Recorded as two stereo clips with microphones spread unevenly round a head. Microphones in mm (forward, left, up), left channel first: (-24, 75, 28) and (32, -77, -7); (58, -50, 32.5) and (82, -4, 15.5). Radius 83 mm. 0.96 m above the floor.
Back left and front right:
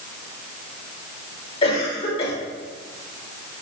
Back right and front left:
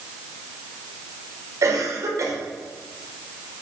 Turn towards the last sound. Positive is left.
turn(degrees=50)